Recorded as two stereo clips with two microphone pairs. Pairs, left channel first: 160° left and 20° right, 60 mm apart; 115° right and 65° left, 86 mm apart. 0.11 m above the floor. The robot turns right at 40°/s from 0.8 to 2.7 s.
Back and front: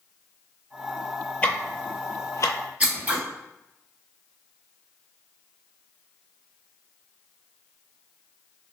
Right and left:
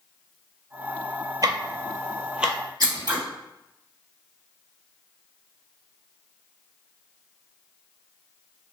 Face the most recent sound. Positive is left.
turn(degrees=45)